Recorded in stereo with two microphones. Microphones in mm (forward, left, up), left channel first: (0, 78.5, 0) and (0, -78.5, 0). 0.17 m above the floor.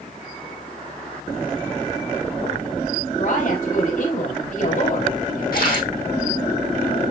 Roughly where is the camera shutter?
Left.